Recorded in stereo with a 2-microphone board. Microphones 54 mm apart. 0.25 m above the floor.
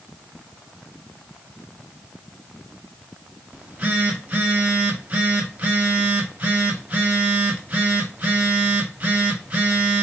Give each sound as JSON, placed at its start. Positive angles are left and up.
{"t": 3.5, "sound": "a phone buzzing", "side_deg": -30, "distance_m": 1.1}